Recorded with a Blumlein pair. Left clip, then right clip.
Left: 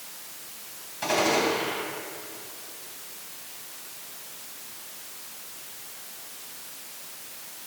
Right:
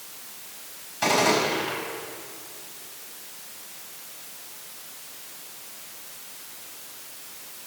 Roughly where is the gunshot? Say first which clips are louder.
Right 2 dB; ahead right.